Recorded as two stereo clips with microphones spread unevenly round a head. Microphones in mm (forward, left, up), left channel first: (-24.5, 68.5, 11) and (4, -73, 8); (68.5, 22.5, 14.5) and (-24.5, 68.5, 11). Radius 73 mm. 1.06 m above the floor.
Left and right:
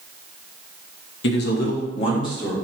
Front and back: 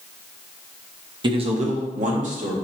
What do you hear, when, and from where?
1.2 s a man speaking: 105° left, 0.9 m; by 2.5 s 170° left, 2 m